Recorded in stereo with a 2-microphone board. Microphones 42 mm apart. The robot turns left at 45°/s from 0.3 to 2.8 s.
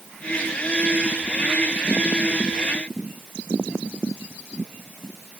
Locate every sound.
Only background noise.